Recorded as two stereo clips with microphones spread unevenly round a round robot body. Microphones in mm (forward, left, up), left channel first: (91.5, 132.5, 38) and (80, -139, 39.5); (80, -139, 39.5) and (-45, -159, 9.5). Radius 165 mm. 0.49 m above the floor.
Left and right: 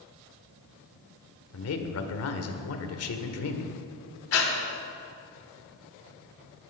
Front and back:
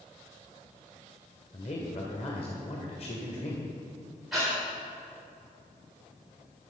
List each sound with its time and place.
1.5 s a man speaking: 70° left, 1.6 m
4.3 s breathing: 110° left, 1.9 m